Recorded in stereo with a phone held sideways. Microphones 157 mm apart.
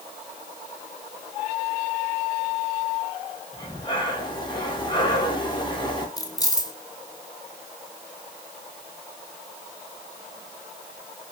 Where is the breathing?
30° left (ahead or behind), 2 m.